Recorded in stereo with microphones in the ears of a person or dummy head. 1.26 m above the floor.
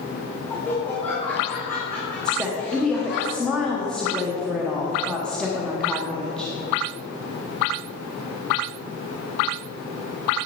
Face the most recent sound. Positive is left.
turn(degrees=0)  # may be behind; listen again after turning